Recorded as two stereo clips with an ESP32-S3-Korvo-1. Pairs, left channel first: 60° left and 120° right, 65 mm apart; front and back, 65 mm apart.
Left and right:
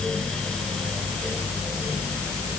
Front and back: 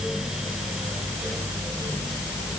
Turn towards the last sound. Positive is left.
No sound to turn to.